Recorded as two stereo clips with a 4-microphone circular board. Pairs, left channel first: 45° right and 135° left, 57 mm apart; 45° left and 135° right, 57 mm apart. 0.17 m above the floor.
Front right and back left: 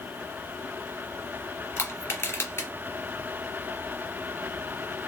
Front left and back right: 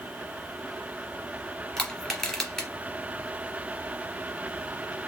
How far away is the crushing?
About 1.8 m.